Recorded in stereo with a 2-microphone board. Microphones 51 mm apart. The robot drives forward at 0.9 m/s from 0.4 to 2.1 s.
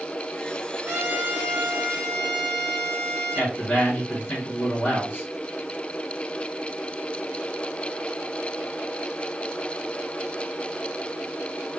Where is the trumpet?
30° right (ahead or behind), 1.5 m; by 3.5 s 20° right (ahead or behind), 2.5 m.